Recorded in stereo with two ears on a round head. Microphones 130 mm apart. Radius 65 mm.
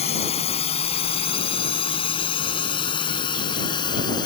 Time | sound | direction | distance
0.0 | a drone | 45° left (ahead or behind) | ?